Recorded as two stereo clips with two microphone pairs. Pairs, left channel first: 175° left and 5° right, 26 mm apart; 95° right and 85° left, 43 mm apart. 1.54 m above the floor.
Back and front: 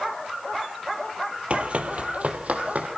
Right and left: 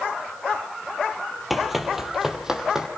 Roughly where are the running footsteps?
Ahead.